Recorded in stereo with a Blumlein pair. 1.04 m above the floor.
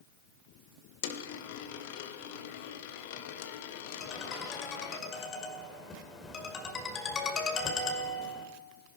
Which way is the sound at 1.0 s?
50° left.